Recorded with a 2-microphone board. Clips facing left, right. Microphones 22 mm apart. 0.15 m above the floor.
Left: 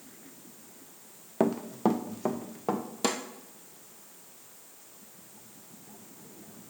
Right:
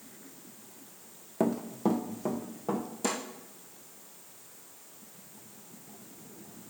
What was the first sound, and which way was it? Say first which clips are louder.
Running footsteps: left 2 dB; 25° left (ahead or behind).